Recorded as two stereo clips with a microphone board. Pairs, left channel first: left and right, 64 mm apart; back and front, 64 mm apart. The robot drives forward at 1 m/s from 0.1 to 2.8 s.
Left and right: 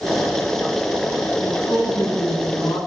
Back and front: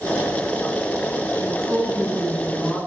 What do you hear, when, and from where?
1.4 s a woman speaking: 65° left, 9.5 m; by 2.8 s 75° left, 9 m